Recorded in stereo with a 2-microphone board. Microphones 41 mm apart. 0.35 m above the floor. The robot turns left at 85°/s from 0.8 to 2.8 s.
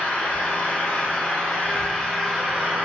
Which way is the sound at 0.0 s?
115° left.